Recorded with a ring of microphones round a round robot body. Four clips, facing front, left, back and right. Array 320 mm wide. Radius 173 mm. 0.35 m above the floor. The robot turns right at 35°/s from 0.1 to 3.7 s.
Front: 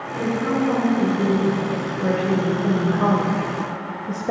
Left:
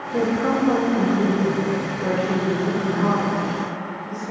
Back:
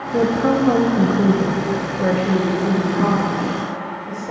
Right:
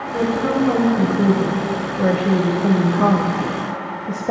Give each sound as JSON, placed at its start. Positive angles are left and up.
{"t": 0.1, "sound": "a woman speaking", "azimuth_deg": 175, "distance_m": 1.7}